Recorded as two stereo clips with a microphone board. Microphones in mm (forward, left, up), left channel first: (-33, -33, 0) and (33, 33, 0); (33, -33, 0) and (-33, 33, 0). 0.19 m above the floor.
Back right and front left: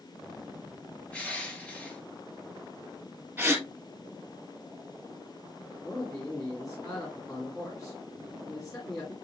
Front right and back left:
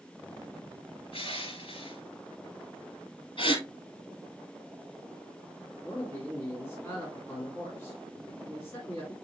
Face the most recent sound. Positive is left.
turn(degrees=-100)